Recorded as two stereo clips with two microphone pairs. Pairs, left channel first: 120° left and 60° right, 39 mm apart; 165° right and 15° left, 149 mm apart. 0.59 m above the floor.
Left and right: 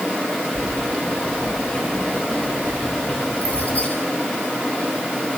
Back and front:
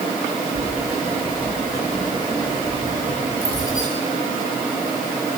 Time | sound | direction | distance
0.6 | keys jangling | 60° left | 8.5 m